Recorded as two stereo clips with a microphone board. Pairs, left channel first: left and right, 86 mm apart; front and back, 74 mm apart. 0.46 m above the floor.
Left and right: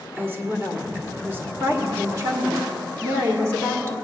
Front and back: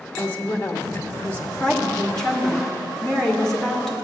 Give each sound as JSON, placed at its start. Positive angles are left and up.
{"t": 0.2, "sound": "a woman speaking", "azimuth_deg": -40, "distance_m": 1.2}
{"t": 1.6, "sound": "a woman speaking", "azimuth_deg": -75, "distance_m": 1.3}